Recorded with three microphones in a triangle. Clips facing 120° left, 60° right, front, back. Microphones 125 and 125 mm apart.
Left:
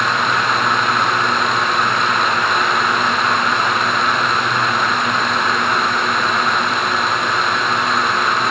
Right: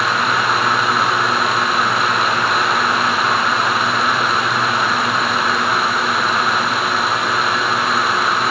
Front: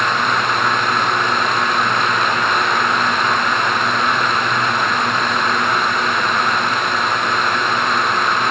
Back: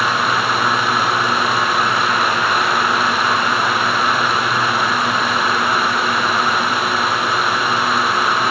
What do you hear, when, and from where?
Only background noise.